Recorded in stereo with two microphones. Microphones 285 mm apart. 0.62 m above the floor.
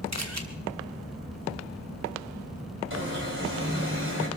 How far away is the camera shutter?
About 2.0 m.